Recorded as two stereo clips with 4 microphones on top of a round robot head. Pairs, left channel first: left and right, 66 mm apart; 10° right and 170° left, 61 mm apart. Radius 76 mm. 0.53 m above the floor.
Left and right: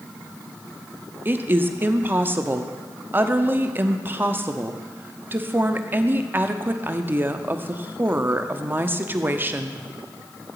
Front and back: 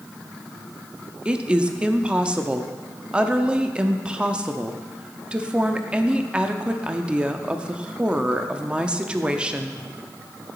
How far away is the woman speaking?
About 0.7 m.